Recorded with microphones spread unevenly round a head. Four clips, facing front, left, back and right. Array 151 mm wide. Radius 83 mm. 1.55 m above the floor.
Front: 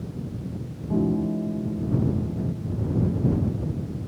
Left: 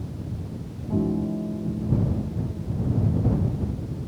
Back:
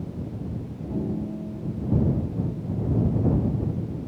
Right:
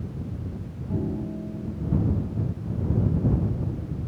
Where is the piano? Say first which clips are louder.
Left 5 dB, front 6 dB; 5° left.